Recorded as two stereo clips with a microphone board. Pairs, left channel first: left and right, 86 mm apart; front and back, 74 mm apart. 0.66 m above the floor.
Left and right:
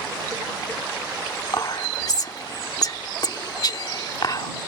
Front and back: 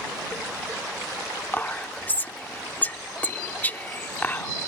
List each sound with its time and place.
1.5 s whispering: 60° left